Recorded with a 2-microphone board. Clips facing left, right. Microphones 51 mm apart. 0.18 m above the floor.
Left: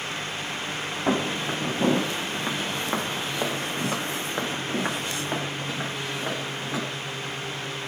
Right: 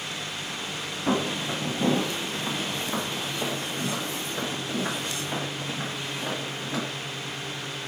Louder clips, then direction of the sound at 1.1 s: Left 1 dB; 40° left (ahead or behind).